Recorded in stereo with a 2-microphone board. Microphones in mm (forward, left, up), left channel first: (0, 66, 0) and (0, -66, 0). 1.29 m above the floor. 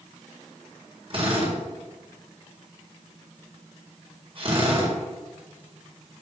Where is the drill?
45° right (ahead or behind), 4 m.